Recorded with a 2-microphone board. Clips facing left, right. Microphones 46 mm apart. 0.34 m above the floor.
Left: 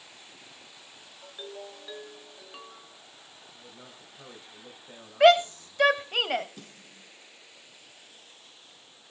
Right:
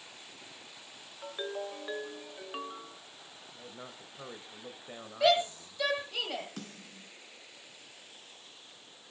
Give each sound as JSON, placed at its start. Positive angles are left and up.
{"t": 1.2, "sound": "a ringtone", "side_deg": -35, "distance_m": 0.9}
{"t": 3.5, "sound": "a man speaking", "side_deg": -25, "distance_m": 1.7}
{"t": 5.2, "sound": "a shout", "side_deg": 50, "distance_m": 2.0}
{"t": 6.6, "sound": "a snare drum", "side_deg": -70, "distance_m": 5.0}